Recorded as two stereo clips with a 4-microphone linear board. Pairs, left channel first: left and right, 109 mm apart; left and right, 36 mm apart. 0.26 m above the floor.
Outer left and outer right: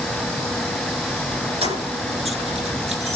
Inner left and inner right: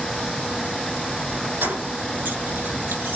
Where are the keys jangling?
60° right (ahead or behind), 6.5 m.